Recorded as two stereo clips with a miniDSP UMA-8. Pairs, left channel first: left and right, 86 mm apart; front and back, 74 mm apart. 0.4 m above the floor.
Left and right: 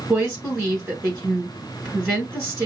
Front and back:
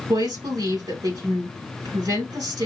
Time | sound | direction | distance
0.1 | a woman speaking | 155° right | 5 m